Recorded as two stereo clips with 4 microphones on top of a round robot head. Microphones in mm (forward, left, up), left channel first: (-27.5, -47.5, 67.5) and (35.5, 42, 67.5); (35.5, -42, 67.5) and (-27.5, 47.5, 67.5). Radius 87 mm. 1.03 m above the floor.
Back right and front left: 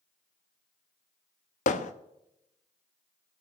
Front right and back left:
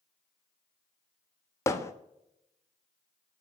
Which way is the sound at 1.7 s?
120° right.